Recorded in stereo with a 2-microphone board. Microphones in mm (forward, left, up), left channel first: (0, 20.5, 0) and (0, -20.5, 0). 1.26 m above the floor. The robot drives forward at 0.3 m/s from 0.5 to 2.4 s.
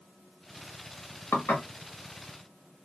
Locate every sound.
1.3 s dishes clattering: 70° left (ahead or behind), 1.1 m; by 1.6 s 75° left (ahead or behind), 1.0 m